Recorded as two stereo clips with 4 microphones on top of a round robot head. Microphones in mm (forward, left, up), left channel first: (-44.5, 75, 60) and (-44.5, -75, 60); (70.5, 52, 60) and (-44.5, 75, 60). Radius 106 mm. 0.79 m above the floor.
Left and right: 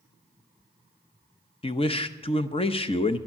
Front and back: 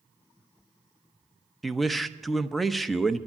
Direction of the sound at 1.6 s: 80° left.